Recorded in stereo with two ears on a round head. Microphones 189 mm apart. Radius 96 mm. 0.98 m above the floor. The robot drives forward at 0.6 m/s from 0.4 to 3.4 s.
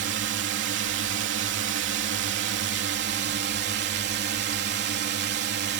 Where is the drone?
55° right (ahead or behind).